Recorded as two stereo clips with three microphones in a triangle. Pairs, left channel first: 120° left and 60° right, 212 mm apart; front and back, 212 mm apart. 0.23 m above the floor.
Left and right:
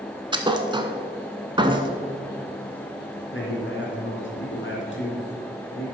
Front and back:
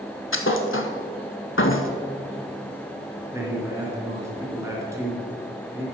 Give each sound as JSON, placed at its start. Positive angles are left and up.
{"t": 0.3, "sound": "a thud", "azimuth_deg": 10, "distance_m": 0.8}
{"t": 3.3, "sound": "a man speaking", "azimuth_deg": 105, "distance_m": 2.5}